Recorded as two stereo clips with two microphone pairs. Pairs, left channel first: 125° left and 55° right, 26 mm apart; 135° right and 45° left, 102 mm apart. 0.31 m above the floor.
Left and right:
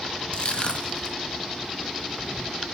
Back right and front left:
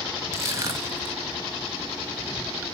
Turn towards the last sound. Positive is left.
turn(degrees=95)